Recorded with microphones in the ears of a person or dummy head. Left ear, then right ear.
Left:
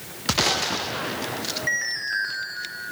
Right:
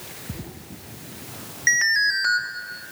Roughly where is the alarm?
Right.